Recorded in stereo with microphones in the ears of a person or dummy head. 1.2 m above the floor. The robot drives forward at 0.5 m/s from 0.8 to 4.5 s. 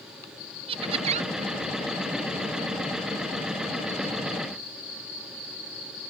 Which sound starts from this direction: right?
Laughter, at 0.7 s.